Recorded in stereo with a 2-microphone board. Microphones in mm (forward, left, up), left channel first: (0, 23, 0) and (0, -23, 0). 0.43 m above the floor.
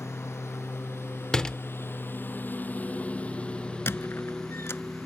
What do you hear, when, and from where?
0.0 s a lawn mower: 85° left; by 5.1 s centre (ahead or behind)
1.3 s a door slam: 15° left (ahead or behind)
3.9 s a squeak: 65° left (ahead or behind)